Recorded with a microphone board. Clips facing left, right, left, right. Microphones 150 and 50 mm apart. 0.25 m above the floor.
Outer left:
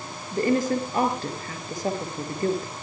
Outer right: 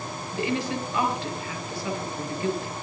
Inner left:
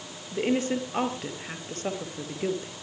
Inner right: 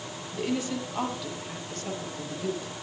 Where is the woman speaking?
45° left (ahead or behind), 5 m.